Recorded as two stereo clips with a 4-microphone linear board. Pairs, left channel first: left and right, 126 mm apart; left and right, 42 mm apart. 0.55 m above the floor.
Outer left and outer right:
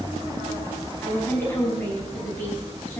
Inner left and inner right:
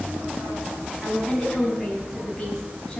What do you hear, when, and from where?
1.0 s a woman speaking: 15° left (ahead or behind), 4.5 m